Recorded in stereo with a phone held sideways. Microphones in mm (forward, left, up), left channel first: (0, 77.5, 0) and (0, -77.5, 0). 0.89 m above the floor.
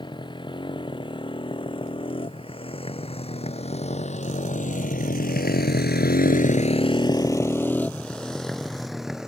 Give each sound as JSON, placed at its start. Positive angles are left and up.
{"t": 0.0, "sound": "a motorcycle", "side_deg": 30}